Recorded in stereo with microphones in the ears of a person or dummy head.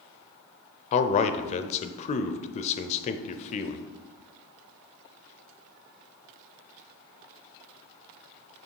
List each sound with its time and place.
0.9 s a man speaking: 35° left (ahead or behind), 0.5 m